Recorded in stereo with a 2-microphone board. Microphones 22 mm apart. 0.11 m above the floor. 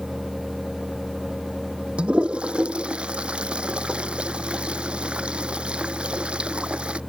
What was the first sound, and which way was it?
A toilet flushing, 60° right (ahead or behind).